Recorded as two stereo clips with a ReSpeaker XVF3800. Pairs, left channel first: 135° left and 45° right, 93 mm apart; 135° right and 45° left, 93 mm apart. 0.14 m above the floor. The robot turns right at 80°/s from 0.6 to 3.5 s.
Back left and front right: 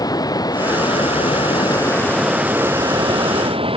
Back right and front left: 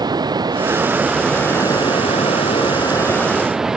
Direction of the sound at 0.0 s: 90° left.